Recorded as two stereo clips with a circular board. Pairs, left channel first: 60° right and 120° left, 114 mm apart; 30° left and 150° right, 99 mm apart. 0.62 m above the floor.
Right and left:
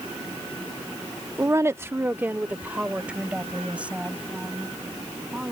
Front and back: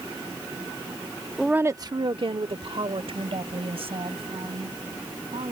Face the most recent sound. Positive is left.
turn(degrees=-160)